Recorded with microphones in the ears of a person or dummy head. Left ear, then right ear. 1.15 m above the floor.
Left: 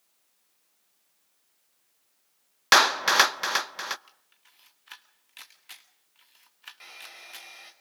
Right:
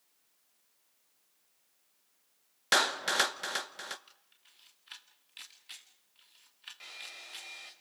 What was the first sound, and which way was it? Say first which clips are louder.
A clap: left 9 dB; 45° left (ahead or behind).